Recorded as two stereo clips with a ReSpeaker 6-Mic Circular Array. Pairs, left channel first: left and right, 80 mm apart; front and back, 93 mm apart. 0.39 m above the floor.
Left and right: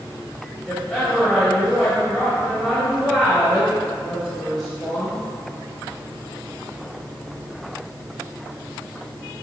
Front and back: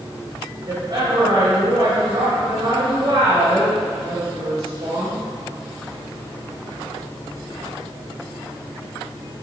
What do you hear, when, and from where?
0.7 s a woman speaking: 175° left, 2 m